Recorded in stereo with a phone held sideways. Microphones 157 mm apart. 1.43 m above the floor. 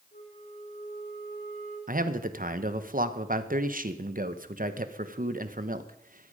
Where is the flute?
65° left (ahead or behind), 8 m.